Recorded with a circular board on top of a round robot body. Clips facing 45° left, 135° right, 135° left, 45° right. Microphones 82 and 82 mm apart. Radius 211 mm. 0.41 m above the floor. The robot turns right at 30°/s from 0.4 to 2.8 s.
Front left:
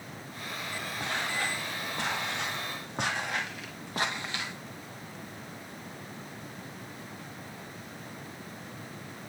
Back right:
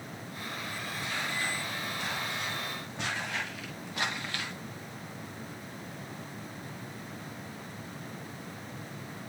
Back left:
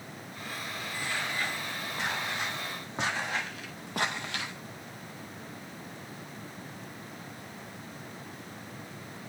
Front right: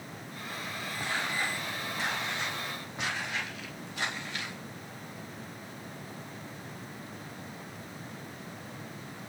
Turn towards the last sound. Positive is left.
turn(degrees=125)